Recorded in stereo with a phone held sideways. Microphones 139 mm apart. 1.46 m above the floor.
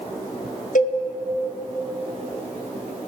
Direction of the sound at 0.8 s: 65° left (ahead or behind).